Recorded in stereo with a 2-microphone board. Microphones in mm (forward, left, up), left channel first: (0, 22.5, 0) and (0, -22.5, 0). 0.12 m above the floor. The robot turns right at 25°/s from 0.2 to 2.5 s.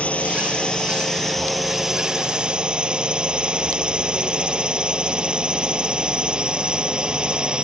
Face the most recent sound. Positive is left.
turn(degrees=-155)